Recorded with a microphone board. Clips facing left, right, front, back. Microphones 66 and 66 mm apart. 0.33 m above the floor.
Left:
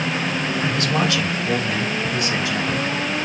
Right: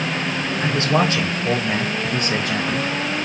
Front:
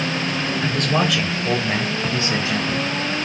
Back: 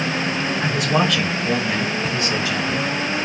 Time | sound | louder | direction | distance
0.6 | a man speaking | right 4 dB, back 1 dB | 120° right | 1.5 m